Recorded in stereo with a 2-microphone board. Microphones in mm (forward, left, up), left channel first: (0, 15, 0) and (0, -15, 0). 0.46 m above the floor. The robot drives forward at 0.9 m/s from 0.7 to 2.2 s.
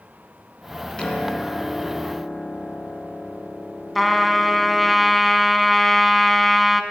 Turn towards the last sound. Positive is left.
turn(degrees=0)  # may be behind; listen again after turning